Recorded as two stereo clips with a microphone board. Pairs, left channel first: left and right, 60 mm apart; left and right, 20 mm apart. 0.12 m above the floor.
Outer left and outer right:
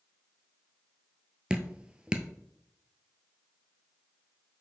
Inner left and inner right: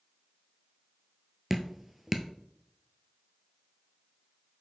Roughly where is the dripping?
Centre.